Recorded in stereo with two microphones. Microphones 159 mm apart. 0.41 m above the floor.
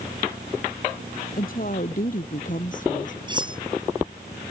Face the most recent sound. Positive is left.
turn(degrees=-30)  # may be behind; listen again after turning